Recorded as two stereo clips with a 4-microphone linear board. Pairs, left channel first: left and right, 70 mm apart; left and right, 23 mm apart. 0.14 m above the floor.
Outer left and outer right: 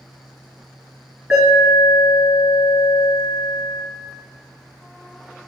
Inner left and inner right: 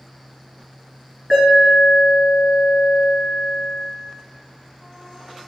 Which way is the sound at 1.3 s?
10° right (ahead or behind).